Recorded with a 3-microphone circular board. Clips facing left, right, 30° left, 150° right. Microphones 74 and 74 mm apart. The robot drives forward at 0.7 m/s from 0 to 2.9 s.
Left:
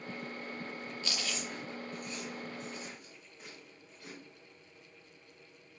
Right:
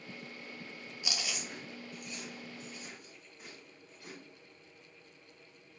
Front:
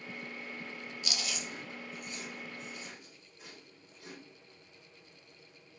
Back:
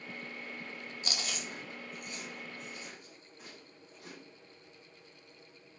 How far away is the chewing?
About 0.6 m.